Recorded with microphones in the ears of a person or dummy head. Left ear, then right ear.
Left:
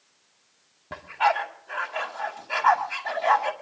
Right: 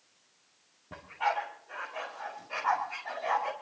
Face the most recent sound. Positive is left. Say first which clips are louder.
# left 8 dB
turn(degrees=55)  # may be behind; listen again after turning